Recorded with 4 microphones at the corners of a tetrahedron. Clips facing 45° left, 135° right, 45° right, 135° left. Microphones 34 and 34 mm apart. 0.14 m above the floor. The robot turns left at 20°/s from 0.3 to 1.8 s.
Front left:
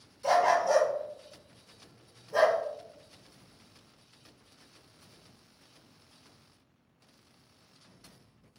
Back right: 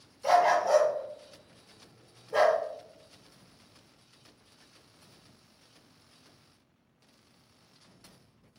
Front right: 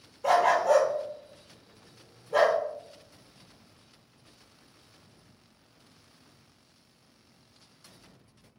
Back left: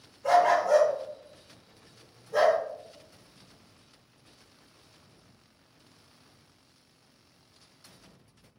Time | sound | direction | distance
0.2 | a dog barking | 55° right | 0.9 m